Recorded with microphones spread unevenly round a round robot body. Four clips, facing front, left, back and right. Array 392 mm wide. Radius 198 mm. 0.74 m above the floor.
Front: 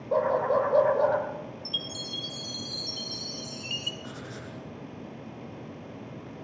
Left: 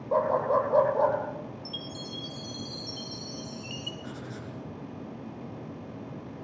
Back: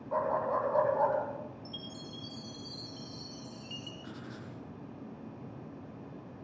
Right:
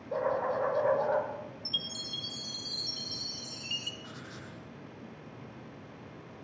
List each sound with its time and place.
0.1 s a dog barking: 65° left, 7 m
1.6 s a chime: 70° right, 3 m
4.0 s writing: 85° left, 6 m